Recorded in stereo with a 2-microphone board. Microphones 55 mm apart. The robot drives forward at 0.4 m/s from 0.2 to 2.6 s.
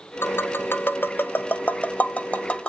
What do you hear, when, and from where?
0.2 s tapping: 45° left (ahead or behind), 0.6 m; by 2.7 s 20° left (ahead or behind), 1.2 m